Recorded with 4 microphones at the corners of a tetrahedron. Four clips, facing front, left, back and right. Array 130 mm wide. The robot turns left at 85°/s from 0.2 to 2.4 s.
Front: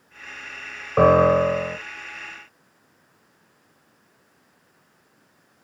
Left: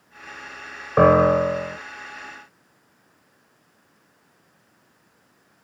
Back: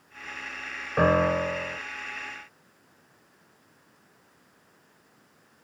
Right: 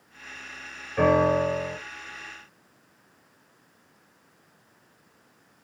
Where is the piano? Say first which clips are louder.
Left 6 dB, front 7 dB; 70° left, 0.7 m; by 1.8 s straight ahead, 0.7 m.